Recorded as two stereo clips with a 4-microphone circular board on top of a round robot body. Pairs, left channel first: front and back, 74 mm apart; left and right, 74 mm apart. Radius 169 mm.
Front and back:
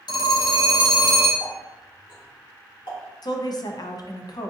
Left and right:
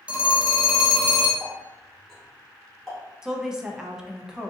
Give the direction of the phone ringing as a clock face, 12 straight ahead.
1 o'clock.